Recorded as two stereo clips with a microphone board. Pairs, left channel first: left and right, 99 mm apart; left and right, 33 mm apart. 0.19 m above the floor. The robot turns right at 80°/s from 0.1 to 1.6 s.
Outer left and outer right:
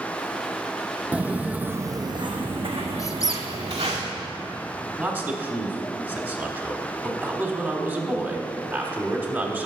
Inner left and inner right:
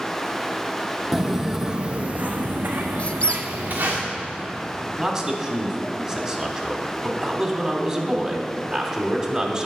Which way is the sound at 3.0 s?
35° left (ahead or behind).